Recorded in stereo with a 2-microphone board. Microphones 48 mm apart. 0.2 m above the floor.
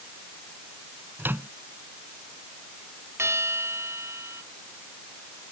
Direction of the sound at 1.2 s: 50° right (ahead or behind).